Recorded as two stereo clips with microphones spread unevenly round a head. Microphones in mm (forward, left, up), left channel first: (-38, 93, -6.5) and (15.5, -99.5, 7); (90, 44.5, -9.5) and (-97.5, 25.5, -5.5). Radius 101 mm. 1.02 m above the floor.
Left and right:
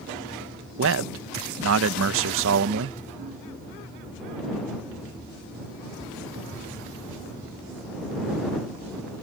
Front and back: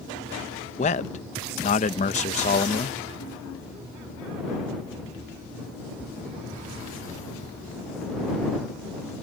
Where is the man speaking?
50° right.